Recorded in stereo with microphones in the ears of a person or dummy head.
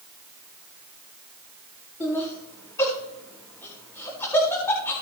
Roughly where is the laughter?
Centre.